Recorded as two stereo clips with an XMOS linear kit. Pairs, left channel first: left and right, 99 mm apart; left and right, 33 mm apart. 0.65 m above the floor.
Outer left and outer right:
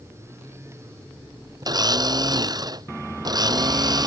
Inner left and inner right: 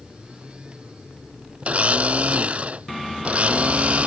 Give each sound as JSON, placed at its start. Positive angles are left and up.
{"t": 1.6, "sound": "a blender", "side_deg": -40}